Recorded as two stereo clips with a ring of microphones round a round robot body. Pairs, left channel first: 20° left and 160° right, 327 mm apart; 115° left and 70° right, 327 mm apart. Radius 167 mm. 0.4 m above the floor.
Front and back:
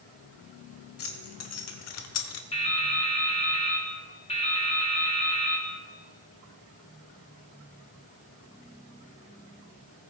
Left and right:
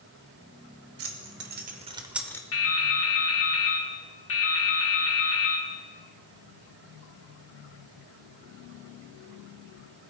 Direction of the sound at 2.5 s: 90° left.